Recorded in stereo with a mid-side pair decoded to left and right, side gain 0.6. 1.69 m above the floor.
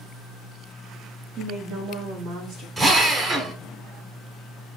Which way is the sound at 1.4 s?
40° right.